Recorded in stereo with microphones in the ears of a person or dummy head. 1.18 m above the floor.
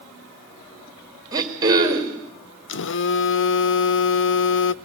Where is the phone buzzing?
80° left, 0.5 m.